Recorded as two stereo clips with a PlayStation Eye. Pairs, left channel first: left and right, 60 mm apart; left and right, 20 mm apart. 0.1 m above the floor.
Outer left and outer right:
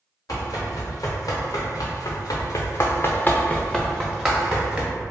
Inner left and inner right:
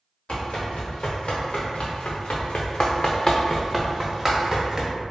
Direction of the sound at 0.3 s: 70° left (ahead or behind).